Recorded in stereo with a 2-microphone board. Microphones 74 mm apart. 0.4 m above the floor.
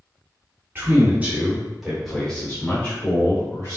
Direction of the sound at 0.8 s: 30° right (ahead or behind).